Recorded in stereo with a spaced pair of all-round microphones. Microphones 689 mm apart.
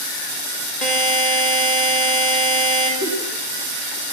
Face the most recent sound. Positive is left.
turn(degrees=50)  # may be behind; listen again after turning